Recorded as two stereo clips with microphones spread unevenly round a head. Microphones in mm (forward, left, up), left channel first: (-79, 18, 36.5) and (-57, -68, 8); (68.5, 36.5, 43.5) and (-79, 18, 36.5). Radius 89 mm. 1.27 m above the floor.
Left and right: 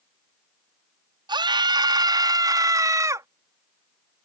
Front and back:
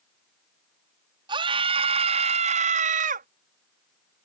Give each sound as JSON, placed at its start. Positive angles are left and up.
{"t": 1.3, "sound": "a scream", "azimuth_deg": -110}